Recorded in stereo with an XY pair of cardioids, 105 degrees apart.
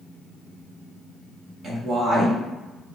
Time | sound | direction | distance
1.6 | a woman speaking | 60° right | 1.2 m